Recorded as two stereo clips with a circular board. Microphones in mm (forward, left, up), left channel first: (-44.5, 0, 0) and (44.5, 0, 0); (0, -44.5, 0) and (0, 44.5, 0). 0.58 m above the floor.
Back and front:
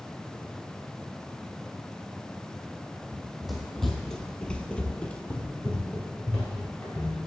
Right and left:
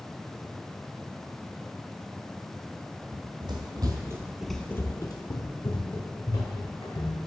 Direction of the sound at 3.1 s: 85° left.